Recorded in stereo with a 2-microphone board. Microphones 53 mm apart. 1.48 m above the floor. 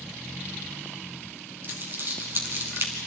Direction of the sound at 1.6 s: 45° right (ahead or behind).